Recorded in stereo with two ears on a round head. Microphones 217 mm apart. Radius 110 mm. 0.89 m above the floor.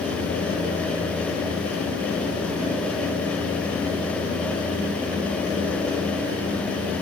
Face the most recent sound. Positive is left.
No sound to turn to.